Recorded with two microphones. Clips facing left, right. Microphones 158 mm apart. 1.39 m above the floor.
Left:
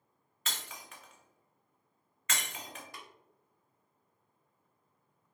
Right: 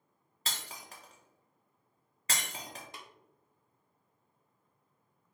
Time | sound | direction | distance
0.5 | breaking glass | 35° right (ahead or behind) | 0.6 m
2.9 | tapping | 20° right (ahead or behind) | 0.6 m